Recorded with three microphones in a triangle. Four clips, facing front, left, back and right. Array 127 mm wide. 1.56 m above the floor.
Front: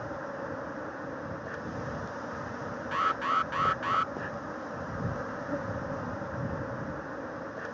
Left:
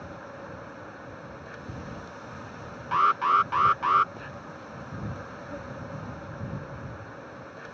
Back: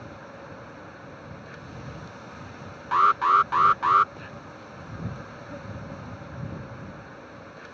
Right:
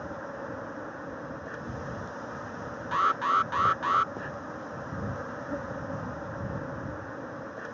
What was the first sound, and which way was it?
An insect, 30° right.